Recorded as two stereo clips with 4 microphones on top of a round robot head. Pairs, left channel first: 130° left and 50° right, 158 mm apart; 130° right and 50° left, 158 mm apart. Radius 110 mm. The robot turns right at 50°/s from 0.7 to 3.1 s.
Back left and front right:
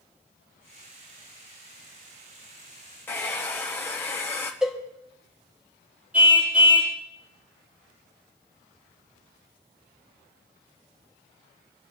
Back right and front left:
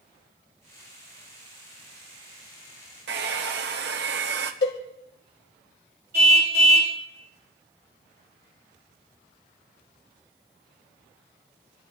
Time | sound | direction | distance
3.1 | a hair dryer | 55° left | 0.9 m
4.6 | a cowbell | 135° right | 1.9 m
6.1 | a car horn | 30° left | 3.5 m